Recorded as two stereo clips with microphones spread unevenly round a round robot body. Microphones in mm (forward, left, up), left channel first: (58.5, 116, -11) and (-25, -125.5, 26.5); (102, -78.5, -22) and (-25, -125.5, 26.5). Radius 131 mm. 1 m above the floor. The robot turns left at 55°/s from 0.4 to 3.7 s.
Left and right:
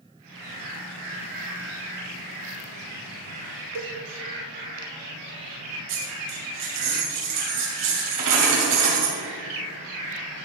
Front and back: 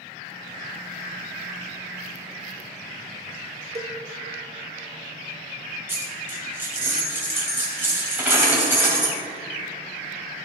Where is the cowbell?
110° right, 1.0 m.